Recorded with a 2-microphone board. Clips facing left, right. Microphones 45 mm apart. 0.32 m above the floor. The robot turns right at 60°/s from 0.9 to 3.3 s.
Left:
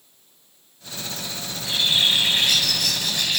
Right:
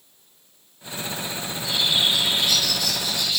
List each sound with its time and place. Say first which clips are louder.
1.5 s a bird: left 1 dB; 5° left, 2 m; by 3.4 s 115° left, 2 m